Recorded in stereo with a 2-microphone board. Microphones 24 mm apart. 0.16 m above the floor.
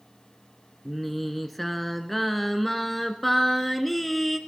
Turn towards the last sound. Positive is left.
turn(degrees=5)  # may be behind; listen again after turning